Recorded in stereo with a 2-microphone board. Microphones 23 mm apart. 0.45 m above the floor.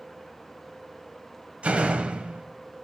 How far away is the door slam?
About 1.5 m.